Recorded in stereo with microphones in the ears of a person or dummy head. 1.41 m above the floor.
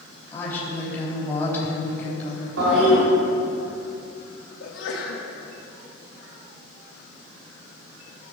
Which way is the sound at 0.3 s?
15° left (ahead or behind).